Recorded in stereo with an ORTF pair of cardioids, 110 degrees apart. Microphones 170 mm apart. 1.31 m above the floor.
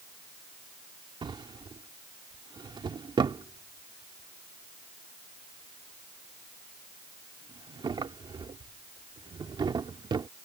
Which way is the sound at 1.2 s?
30° right.